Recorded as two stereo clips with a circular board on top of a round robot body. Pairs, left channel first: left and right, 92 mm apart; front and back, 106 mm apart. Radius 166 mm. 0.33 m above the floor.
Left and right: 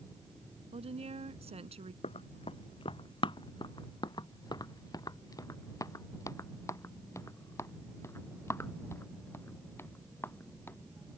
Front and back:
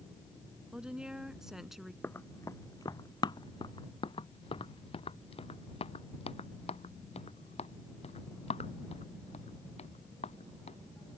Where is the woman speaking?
100° right; by 1.9 s 90° right.